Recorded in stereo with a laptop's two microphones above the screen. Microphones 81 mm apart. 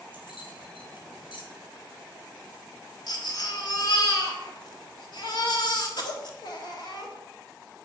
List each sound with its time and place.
0.1 s keys jangling: 80° left, 3 m
3.1 s a baby crying: 60° left (ahead or behind), 1.7 m